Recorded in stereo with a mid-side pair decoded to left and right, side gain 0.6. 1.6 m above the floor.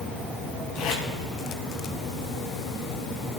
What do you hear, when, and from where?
0.8 s tape being pulled: 65° left, 5 m